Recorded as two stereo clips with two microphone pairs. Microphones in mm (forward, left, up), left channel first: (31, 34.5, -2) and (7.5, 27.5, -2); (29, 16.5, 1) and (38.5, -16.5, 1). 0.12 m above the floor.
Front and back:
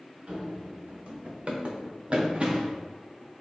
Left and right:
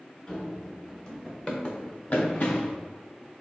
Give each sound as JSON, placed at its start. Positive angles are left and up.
{"t": 0.3, "sound": "running footsteps", "azimuth_deg": 170, "distance_m": 1.7}